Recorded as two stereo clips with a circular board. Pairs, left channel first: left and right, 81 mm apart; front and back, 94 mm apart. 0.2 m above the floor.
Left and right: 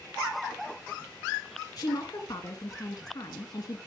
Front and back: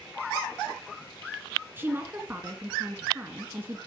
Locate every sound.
1.8 s a woman speaking: 115° left, 2 m